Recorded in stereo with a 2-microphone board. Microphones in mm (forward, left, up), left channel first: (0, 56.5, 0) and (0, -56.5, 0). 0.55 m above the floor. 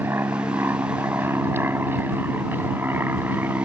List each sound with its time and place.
0.0 s an aircraft: 20° right (ahead or behind)